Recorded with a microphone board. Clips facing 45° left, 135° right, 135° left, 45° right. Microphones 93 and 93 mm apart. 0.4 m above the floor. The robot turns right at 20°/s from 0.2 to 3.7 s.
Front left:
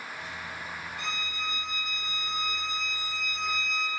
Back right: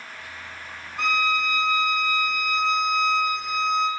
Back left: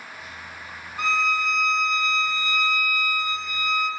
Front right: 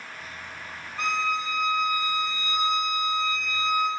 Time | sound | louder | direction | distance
1.0 | a violin | back right 15 dB, back left 3 dB | 150° right | 1.4 m